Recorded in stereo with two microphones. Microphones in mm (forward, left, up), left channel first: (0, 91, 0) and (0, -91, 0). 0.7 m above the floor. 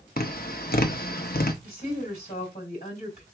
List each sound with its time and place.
0.2 s tapping: 55° left (ahead or behind), 0.8 m
1.6 s a woman speaking: 45° left (ahead or behind), 3.5 m